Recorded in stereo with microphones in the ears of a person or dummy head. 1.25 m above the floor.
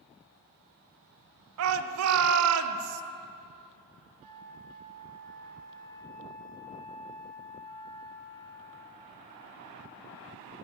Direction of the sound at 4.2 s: 45° right (ahead or behind).